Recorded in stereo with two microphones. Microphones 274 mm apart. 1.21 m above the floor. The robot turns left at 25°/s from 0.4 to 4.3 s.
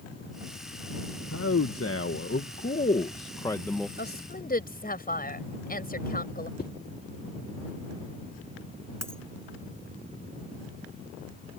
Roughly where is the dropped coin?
Right.